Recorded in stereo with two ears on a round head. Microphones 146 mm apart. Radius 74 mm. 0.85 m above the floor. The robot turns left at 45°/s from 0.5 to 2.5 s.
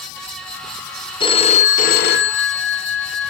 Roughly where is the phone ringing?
Behind left.